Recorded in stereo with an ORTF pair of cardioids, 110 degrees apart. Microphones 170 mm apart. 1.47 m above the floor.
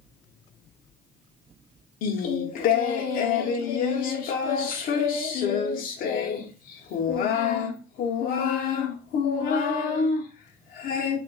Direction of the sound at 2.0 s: 65° left.